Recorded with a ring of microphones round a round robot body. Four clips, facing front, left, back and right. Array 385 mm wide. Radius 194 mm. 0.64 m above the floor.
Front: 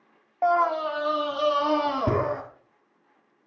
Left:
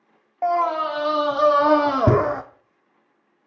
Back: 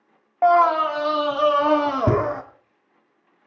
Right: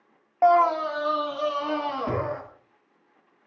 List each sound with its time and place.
0.4 s a scream: 145° right, 0.6 m; by 2.4 s 115° left, 1.4 m